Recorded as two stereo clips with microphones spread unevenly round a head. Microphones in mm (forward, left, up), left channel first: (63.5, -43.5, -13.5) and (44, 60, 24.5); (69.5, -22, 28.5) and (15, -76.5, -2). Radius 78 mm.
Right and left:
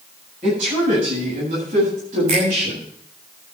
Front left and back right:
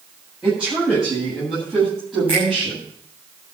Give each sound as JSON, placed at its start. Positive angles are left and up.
{"t": 0.4, "sound": "a woman speaking", "azimuth_deg": 140, "distance_m": 8.5}
{"t": 2.3, "sound": "a finger snap", "azimuth_deg": 145, "distance_m": 6.5}